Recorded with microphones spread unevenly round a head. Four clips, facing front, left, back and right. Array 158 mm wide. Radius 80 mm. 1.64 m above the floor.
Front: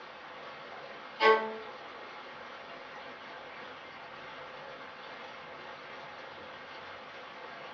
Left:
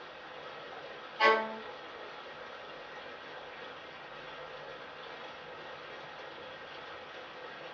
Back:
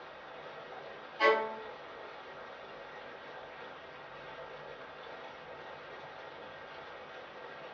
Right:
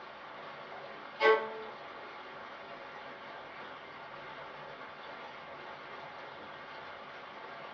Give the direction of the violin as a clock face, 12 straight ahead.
8 o'clock.